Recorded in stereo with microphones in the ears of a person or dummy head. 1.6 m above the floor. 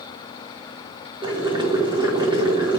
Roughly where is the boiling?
Right.